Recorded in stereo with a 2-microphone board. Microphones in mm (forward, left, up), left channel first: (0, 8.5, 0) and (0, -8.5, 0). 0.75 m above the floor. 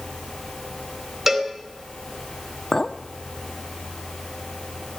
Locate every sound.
1.3 s a cowbell: 20° right (ahead or behind), 3.5 m
2.7 s a clink: 55° left (ahead or behind), 1.0 m